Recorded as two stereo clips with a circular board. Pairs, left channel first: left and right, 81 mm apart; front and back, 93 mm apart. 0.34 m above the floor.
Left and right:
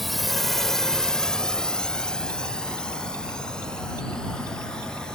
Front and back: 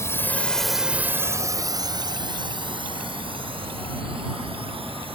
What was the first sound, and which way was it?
A drone, straight ahead.